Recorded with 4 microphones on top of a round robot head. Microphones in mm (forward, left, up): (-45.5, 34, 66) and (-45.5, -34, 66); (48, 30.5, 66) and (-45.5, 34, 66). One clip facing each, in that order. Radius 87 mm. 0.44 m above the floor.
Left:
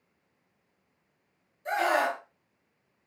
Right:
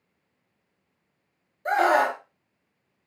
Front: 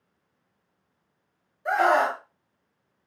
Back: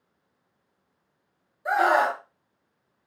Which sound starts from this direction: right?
A scream, at 1.6 s.